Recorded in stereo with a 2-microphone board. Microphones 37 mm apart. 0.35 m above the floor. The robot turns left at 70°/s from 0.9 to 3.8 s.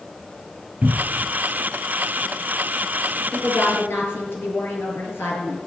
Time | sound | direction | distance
0.8 | a cupboard door | 35° right (ahead or behind) | 0.8 m
3.3 | a woman speaking | 125° left | 6 m